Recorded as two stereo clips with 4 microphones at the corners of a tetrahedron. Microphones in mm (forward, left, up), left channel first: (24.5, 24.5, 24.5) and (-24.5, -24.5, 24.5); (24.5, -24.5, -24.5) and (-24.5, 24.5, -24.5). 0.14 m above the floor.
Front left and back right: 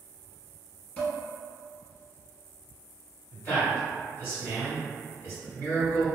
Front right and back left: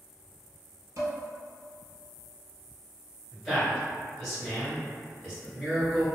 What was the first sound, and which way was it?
Dishes clattering, 115° left.